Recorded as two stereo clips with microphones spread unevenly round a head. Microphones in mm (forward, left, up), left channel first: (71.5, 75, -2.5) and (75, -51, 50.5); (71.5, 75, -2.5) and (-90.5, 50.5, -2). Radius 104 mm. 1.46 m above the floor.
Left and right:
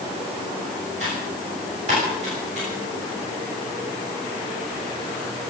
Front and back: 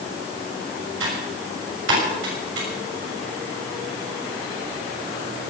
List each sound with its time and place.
1.0 s typing on a keyboard: 145° right, 6.5 m